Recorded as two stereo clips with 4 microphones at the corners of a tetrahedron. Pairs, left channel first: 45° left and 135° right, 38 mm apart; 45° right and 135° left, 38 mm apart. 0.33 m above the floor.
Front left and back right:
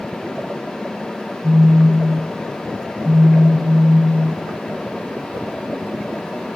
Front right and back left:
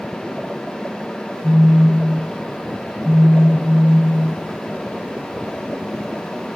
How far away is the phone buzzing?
About 1.0 m.